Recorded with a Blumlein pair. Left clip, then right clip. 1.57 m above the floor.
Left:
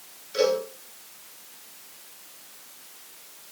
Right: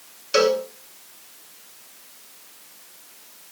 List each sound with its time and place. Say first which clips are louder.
0.3 s a cowbell: right 4 dB; 40° right, 7 m